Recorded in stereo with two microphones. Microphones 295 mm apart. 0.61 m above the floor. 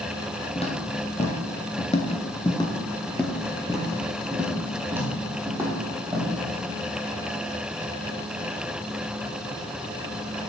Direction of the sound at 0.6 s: 20° left (ahead or behind).